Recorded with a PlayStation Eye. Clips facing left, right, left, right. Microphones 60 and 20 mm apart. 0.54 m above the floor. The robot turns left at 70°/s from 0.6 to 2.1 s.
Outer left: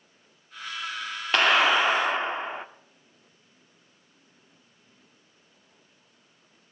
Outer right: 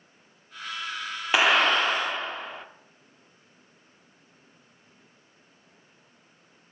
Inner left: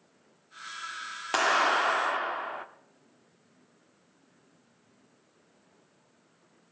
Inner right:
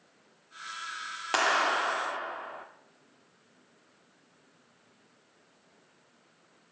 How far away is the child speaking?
I don't hear a child speaking.